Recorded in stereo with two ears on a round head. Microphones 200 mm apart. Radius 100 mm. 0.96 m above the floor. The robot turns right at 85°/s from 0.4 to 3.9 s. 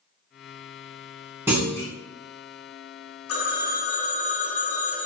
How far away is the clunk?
About 0.9 m.